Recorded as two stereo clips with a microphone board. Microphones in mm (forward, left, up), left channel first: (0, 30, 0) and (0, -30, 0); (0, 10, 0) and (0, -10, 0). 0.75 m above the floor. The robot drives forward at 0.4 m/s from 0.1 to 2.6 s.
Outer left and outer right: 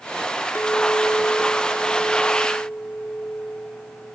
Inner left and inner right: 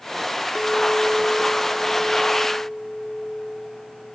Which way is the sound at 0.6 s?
35° left (ahead or behind).